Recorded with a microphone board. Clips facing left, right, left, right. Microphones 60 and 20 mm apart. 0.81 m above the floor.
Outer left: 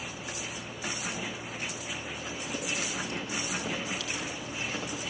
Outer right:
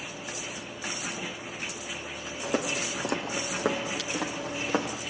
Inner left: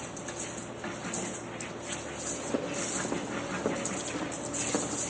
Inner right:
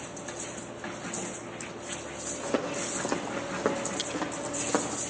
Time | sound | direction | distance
2.4 | footsteps | 80° right | 4 m